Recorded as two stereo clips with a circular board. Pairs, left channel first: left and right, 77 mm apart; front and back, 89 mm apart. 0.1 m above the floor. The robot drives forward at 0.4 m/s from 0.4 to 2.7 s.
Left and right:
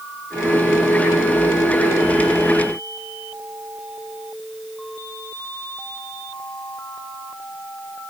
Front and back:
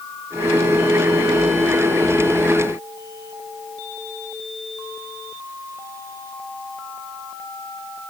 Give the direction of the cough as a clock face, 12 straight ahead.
I don't hear a cough.